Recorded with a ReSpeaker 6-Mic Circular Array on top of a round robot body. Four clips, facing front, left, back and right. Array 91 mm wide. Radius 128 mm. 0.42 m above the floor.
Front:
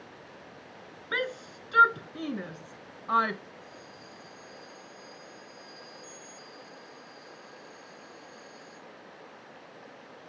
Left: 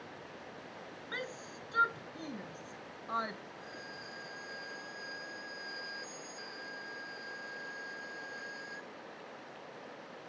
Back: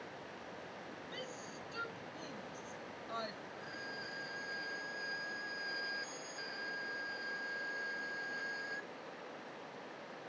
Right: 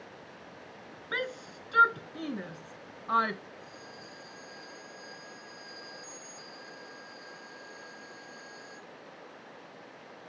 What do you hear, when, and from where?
1.1 s a shout: 25° right; by 3.4 s 35° right
3.6 s a violin: 155° left